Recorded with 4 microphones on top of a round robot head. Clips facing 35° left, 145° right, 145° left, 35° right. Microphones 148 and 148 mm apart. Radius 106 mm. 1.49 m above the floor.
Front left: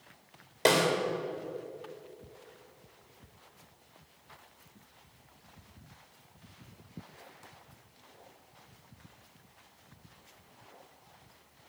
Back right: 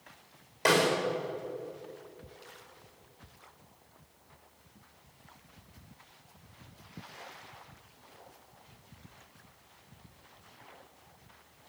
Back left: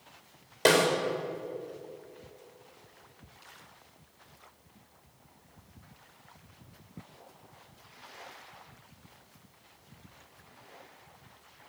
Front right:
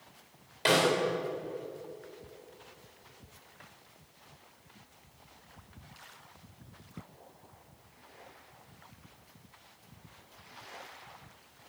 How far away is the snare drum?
About 3 m.